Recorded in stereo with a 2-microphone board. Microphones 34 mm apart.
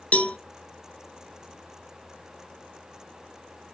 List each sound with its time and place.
0.1 s a cowbell: 40° left (ahead or behind), 0.6 m